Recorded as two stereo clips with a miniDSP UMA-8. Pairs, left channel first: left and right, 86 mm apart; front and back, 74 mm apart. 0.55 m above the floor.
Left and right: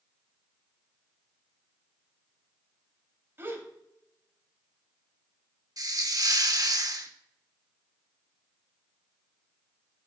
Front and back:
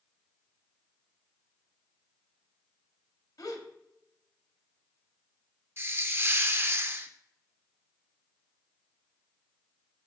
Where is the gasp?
30° right, 1.1 m.